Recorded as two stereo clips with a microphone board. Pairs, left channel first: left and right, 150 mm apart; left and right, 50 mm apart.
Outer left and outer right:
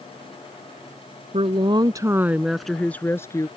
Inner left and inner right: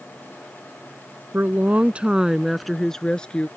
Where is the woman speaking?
40° right (ahead or behind); by 3.5 s 20° left (ahead or behind).